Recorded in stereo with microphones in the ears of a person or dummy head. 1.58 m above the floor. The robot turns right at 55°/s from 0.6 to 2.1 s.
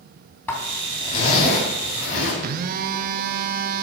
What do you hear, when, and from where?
0.5 s a zipper: 15° left, 2.5 m; by 2.3 s 100° left, 2.5 m
2.4 s a phone buzzing: 50° right (ahead or behind), 0.5 m